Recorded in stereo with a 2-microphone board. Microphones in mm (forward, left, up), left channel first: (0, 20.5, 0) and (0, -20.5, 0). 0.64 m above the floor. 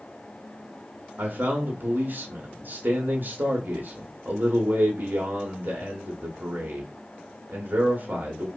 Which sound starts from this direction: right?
A man speaking, at 1.2 s.